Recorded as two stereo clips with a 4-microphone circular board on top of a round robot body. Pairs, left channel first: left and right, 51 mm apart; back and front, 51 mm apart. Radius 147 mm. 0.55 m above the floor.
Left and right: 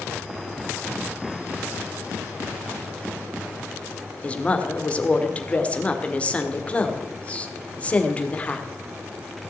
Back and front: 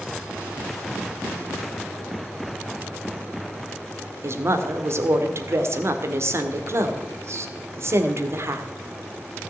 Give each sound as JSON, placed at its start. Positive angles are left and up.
{"t": 4.2, "sound": "a woman speaking", "azimuth_deg": 25, "distance_m": 1.9}